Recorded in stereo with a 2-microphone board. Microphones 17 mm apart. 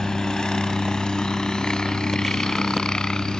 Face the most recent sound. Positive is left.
turn(degrees=60)  # may be behind; listen again after turning